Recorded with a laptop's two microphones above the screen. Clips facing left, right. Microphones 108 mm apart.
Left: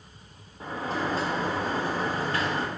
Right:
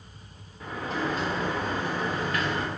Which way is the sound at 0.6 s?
35° left (ahead or behind).